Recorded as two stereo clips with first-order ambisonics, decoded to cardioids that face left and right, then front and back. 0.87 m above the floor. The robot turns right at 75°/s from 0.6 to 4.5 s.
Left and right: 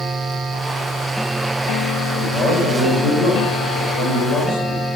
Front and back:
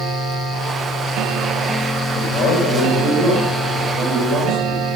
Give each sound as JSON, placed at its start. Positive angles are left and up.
{"t": 2.1, "sound": "a man speaking", "azimuth_deg": -35, "distance_m": 3.5}